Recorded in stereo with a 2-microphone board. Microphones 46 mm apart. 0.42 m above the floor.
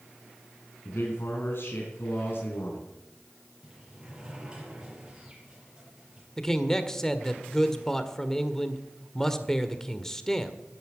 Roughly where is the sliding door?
Centre.